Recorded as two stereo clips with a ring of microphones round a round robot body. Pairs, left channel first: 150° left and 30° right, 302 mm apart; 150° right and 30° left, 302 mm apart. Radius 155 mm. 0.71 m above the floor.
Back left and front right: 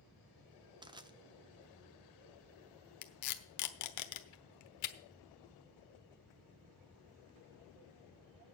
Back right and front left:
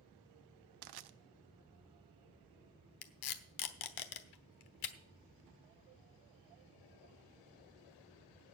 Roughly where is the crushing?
Ahead left.